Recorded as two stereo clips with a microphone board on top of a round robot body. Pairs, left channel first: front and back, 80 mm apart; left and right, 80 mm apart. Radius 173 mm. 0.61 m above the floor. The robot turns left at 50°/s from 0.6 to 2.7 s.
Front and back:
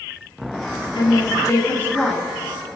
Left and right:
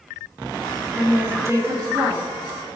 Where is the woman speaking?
15° right, 2 m; by 2.2 s 80° right, 2 m.